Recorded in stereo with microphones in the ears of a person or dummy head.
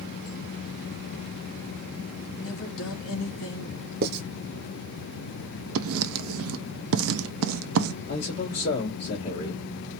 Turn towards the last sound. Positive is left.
turn(degrees=60)  # may be behind; listen again after turning